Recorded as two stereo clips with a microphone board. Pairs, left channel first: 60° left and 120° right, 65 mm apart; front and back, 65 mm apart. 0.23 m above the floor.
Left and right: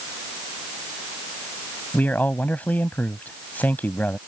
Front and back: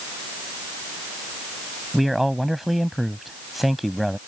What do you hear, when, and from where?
1.9 s a man speaking: 90° left